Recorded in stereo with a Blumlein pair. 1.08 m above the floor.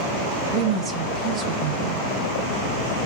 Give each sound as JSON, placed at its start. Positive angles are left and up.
{"t": 0.5, "sound": "a woman speaking", "azimuth_deg": -20, "distance_m": 0.6}